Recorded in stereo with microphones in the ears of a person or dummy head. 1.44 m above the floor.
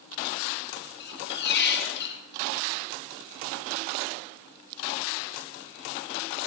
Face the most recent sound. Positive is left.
turn(degrees=60)  # may be behind; listen again after turning